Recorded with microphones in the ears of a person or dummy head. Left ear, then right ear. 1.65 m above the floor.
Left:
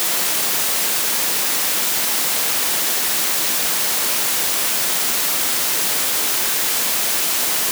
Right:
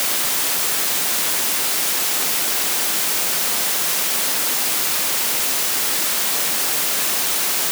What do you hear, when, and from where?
Only background noise.